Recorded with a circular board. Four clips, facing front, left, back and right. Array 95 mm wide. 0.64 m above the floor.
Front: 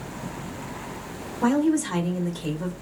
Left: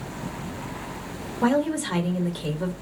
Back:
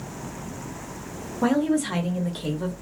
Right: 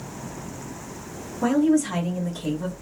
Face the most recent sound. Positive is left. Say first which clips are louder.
# right 3 dB, front 1 dB
turn(degrees=135)